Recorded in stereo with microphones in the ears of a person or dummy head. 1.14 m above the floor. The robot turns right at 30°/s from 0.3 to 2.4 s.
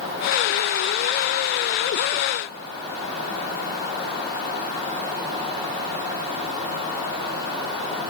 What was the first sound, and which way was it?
Only background noise.